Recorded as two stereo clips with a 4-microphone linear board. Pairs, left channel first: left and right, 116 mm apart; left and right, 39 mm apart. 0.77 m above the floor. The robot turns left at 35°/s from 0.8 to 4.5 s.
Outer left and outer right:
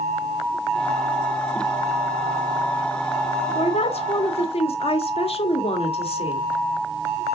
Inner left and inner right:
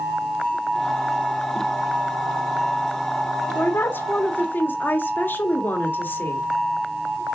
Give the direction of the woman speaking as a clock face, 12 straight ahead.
8 o'clock.